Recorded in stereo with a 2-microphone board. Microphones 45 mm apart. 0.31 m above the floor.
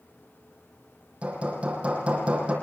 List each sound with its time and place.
1.2 s hammering: 30° right (ahead or behind), 6.5 m